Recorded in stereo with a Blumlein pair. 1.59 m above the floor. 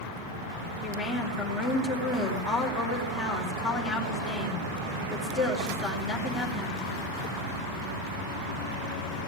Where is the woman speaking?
20° left, 5 m.